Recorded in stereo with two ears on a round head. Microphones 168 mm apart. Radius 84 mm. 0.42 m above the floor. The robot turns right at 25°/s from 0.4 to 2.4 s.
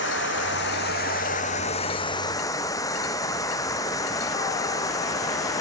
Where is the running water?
110° left; by 5.6 s 160° left.